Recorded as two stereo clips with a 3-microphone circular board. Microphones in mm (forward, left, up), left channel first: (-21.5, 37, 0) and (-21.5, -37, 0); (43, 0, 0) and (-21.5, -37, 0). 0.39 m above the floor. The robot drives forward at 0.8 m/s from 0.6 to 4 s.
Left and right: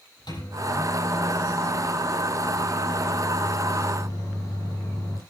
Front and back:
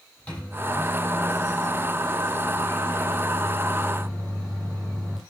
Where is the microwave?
105° left, 9 m; by 5.2 s 120° left, 10 m.